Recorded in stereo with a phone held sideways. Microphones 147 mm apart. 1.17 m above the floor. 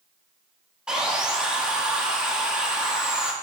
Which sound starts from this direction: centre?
Sawing, at 0.9 s.